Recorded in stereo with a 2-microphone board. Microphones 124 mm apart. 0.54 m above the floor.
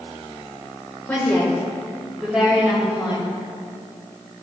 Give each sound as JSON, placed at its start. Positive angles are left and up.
{"t": 1.1, "sound": "a woman speaking", "side_deg": 15, "distance_m": 1.6}